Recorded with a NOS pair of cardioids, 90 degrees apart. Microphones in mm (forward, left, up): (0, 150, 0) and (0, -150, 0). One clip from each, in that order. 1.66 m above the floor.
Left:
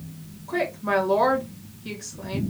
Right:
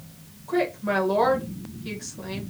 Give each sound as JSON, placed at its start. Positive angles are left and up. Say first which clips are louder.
{"t": 0.5, "sound": "a woman speaking", "louder": "even", "azimuth_deg": 0, "distance_m": 1.5}